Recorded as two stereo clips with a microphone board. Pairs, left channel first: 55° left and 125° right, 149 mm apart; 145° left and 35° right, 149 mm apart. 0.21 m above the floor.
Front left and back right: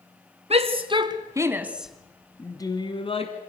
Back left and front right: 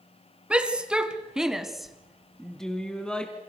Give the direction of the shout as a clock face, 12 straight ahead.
4 o'clock.